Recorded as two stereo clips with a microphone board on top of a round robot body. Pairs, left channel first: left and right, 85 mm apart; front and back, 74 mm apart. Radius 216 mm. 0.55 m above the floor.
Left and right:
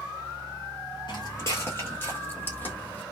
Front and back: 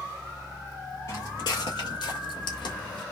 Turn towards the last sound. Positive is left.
turn(degrees=20)